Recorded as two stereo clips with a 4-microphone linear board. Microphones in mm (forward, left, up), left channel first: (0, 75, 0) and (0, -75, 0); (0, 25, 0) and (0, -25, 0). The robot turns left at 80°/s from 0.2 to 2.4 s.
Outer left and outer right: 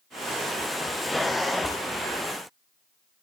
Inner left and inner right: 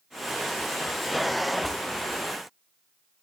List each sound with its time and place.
Only background noise.